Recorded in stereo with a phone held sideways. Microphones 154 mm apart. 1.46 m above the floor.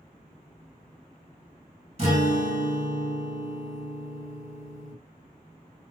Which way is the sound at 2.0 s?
45° right (ahead or behind).